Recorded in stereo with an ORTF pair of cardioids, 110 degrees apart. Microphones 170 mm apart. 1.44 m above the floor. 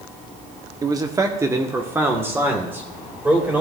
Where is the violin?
No violin in this recording.